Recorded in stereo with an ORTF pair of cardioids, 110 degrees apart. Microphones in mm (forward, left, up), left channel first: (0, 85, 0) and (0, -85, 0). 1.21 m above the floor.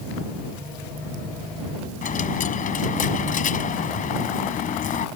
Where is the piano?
I don't hear a piano.